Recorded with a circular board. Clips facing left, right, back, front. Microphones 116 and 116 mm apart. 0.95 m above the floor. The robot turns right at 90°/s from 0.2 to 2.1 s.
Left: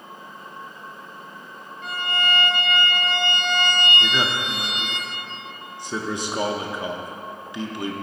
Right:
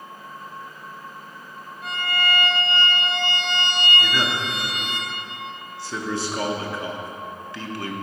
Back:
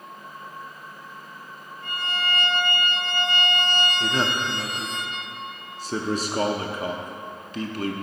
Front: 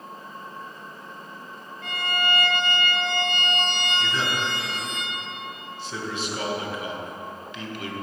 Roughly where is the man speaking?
Behind left.